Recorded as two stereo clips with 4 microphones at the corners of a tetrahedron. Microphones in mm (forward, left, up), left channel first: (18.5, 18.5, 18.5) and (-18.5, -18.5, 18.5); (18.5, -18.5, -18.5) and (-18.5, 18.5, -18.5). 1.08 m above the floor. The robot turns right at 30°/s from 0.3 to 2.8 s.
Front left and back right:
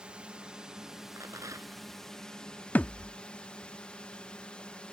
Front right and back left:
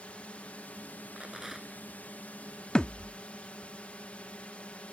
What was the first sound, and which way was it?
A drone, 80° right.